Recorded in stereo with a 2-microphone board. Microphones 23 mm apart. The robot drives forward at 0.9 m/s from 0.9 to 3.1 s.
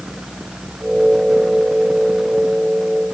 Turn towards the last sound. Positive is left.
No sound to turn to.